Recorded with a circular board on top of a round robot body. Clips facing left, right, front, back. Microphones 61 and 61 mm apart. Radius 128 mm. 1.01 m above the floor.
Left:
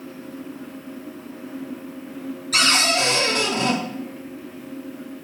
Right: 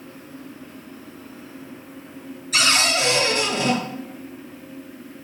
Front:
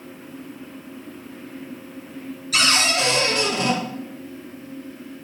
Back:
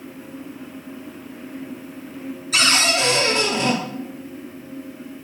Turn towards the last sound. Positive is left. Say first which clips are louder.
# even, back 1 dB
turn(degrees=125)